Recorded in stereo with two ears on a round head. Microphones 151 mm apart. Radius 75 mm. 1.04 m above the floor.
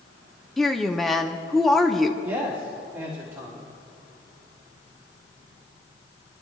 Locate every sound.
0.6 s a woman speaking: centre (ahead or behind), 0.6 m
2.2 s a man speaking: 15° right (ahead or behind), 2 m